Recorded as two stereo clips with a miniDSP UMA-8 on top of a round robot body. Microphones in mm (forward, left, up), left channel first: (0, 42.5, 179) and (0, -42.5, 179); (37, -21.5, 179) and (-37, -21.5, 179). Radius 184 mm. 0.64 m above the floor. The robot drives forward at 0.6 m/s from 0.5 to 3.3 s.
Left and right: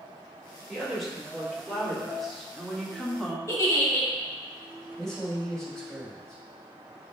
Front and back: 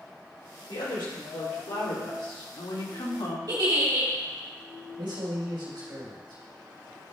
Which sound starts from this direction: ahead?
A woman speaking, at 0.7 s.